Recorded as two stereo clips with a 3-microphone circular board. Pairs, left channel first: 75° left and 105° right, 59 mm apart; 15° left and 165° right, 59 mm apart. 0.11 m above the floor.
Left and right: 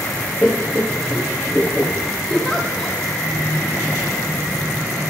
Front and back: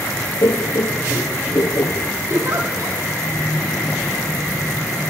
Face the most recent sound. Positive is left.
turn(degrees=165)